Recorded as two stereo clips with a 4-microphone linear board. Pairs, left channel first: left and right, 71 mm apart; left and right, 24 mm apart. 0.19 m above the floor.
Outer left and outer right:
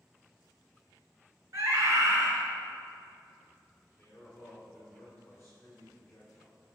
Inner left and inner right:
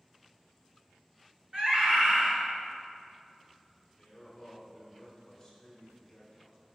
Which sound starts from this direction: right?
A scream, at 1.5 s.